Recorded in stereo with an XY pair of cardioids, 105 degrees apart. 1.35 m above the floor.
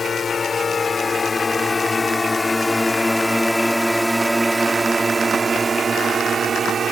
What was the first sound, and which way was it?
A drone, 35° left.